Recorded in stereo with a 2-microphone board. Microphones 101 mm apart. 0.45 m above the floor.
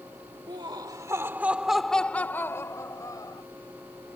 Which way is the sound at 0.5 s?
50° right (ahead or behind).